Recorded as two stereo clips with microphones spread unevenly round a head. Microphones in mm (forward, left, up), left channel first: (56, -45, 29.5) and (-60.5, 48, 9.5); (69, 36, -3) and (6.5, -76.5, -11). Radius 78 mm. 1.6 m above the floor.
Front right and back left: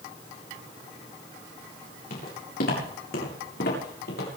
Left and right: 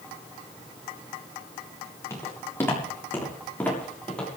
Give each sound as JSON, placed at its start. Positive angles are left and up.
{"t": 2.1, "sound": "footsteps", "azimuth_deg": -10, "distance_m": 8.0}